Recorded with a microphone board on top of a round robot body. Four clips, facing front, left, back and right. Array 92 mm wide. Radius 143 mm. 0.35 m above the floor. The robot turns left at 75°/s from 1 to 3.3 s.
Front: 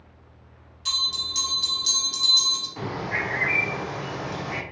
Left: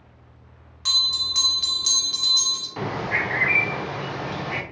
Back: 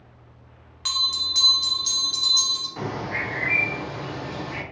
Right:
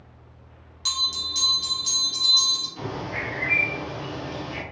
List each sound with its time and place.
0.8 s a bell: 155° left, 0.7 m; by 2.7 s 30° left, 0.7 m
2.8 s a bird: 110° left, 0.5 m; by 4.6 s 70° left, 0.5 m